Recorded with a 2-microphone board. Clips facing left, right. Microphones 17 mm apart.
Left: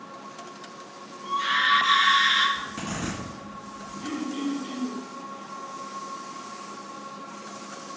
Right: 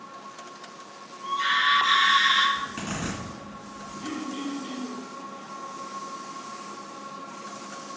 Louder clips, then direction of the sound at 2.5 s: Right 1 dB; 70° right (ahead or behind).